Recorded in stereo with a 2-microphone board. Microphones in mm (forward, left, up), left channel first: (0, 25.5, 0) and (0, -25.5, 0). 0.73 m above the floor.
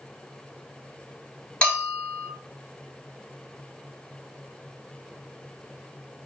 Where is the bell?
20° left (ahead or behind), 1.4 m.